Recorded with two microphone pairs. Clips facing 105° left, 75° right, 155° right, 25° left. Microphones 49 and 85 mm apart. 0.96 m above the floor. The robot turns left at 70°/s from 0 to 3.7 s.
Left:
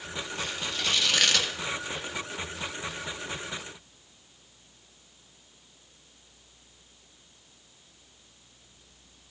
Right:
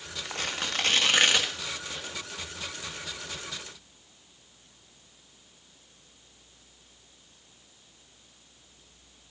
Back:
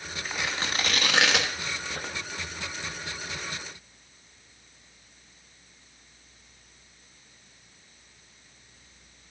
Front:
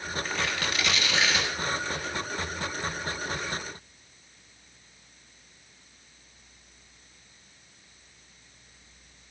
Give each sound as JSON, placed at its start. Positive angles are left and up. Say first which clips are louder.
{"t": 0.2, "sound": "tearing paper", "louder": "right 4 dB, back 1 dB", "azimuth_deg": -70, "distance_m": 1.1}